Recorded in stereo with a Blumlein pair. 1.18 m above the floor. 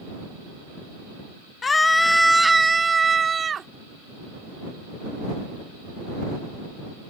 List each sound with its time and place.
1.6 s a scream: 20° left; by 3.7 s 20° right